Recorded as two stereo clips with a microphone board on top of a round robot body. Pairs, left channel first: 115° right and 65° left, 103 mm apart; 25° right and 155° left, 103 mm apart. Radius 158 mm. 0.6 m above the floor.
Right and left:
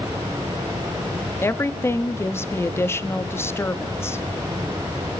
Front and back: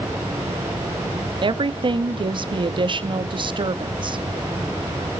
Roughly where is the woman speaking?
Behind.